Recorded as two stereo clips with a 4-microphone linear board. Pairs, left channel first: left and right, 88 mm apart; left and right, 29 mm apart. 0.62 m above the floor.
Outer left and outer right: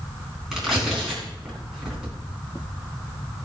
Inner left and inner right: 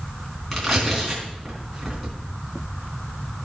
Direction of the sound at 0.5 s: 5° right (ahead or behind).